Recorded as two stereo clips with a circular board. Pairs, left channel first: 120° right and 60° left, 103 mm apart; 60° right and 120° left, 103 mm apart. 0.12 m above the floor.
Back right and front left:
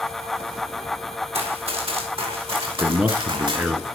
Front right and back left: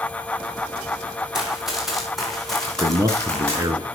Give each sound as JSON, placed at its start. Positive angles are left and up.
{"t": 1.3, "sound": "running footsteps", "azimuth_deg": 35, "distance_m": 5.0}
{"t": 2.7, "sound": "a man speaking", "azimuth_deg": 130, "distance_m": 1.2}